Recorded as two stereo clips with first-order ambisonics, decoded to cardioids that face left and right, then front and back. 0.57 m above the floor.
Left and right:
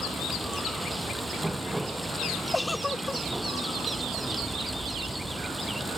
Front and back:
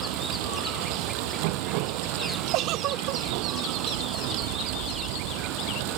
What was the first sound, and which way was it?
Running water, 175° right.